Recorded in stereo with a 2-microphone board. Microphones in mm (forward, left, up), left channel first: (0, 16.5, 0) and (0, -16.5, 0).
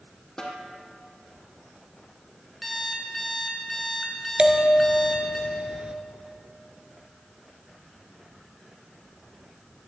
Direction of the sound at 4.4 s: 35° right (ahead or behind).